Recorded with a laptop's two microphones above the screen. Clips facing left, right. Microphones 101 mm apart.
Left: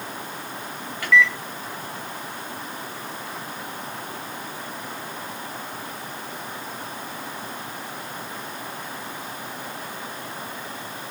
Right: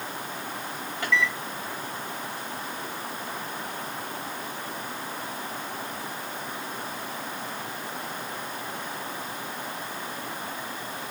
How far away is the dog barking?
I don't hear a dog barking.